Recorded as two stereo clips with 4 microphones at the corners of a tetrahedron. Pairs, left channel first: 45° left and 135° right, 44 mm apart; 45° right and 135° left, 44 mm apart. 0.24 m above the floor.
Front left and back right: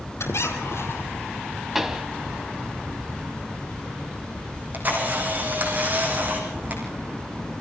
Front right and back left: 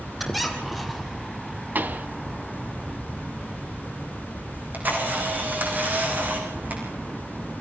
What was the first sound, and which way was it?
A squeak, 45° left.